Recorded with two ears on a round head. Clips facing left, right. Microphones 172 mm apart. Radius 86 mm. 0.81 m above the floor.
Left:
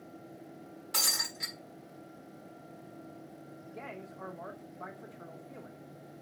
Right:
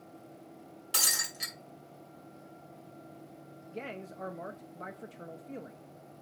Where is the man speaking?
35° right (ahead or behind), 0.8 m.